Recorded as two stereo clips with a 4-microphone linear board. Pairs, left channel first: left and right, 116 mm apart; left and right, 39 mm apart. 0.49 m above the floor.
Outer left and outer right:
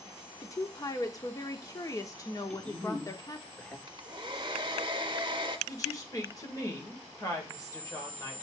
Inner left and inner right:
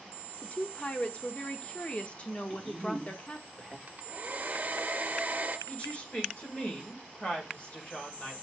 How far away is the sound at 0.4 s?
About 0.9 m.